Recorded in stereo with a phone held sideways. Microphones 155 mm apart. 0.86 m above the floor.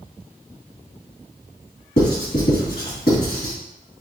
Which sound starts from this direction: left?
Writing, at 2.0 s.